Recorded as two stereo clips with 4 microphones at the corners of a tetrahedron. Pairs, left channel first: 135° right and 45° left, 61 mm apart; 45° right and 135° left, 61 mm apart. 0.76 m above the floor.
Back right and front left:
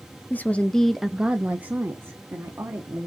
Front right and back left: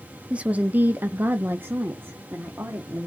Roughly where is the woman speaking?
Behind.